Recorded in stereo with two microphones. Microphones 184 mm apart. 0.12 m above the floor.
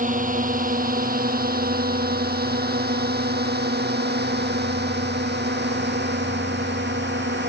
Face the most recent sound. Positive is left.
turn(degrees=-70)  # may be behind; listen again after turning